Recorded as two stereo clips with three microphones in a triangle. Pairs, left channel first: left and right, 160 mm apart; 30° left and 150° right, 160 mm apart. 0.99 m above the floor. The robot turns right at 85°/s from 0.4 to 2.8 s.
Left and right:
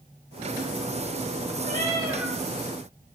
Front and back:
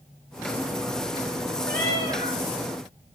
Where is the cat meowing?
60° right, 7 m; by 2.4 s 5° left, 7 m.